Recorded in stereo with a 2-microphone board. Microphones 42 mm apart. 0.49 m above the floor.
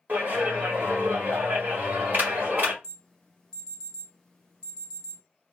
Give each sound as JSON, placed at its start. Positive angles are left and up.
{"t": 0.1, "sound": "a clap", "side_deg": -45, "distance_m": 1.8}
{"t": 2.8, "sound": "an alarm", "side_deg": 15, "distance_m": 1.7}